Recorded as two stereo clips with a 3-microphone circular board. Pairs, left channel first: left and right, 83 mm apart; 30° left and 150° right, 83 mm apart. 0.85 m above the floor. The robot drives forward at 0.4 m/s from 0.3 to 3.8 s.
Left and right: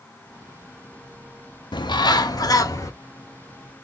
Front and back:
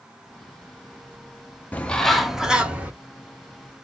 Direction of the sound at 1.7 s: 100° left.